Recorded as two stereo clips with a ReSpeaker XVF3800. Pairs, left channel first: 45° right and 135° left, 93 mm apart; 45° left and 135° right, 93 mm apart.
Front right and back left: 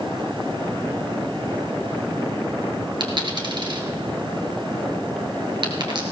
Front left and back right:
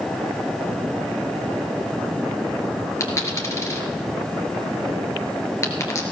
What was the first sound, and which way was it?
A dropped coin, 105° left.